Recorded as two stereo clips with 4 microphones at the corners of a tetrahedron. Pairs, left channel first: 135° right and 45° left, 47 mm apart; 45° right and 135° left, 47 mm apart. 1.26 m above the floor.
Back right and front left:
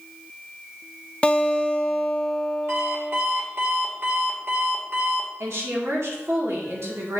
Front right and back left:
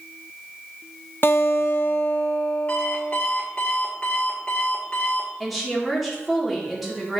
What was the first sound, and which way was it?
A guitar, 75° right.